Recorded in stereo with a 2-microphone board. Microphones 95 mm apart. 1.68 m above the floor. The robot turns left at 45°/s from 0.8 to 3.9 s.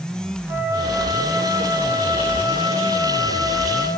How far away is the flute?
About 6.5 m.